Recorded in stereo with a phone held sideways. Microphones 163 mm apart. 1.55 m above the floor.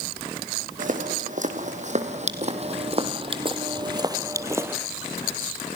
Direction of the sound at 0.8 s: 55° right (ahead or behind).